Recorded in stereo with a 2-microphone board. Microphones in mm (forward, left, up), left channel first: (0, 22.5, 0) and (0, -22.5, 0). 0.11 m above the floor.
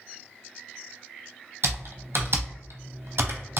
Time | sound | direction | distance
1.6 | typing on a keyboard | 80° right | 0.6 m